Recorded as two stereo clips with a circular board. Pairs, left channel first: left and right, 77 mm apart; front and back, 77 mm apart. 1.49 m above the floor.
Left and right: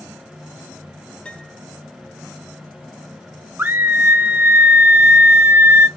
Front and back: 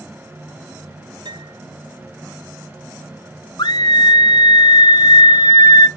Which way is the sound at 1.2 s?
165° left.